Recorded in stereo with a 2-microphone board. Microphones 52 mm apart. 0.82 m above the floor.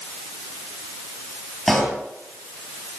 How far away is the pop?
About 8 m.